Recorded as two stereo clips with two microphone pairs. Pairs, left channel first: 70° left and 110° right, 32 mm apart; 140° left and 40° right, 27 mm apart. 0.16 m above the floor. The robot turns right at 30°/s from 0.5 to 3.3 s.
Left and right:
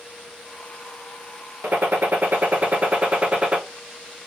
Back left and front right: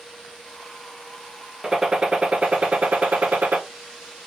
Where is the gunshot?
105° right, 0.6 m; by 3.6 s 55° right, 0.6 m.